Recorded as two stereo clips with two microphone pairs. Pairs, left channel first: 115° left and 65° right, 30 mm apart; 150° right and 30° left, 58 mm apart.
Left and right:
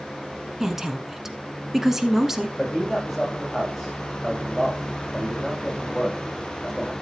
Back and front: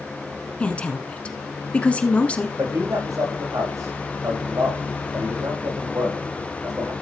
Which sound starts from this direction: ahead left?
A man speaking, at 2.6 s.